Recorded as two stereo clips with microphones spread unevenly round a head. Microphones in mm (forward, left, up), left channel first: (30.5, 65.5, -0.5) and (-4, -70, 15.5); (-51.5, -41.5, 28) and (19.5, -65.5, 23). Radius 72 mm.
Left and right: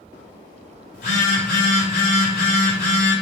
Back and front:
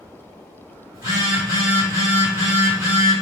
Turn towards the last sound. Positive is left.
turn(degrees=50)